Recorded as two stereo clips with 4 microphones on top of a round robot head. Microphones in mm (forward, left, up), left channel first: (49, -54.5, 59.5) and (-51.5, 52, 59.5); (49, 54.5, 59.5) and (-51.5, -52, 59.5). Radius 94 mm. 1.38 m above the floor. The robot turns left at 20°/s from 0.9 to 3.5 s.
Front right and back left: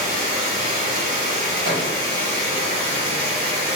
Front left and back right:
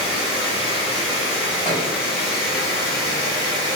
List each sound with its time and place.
0.0 s running water: 95° left, 1.5 m; by 3.8 s 45° left, 1.5 m
1.6 s a thud: 120° left, 1.1 m; by 1.9 s 115° left, 1.1 m